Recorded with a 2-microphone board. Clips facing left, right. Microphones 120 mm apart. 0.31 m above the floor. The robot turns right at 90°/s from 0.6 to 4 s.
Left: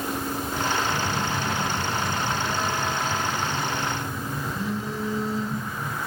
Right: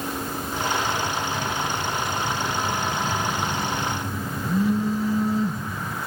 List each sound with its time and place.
0.9 s a phone buzzing: 30° left, 3 m; by 6.0 s 50° right, 3 m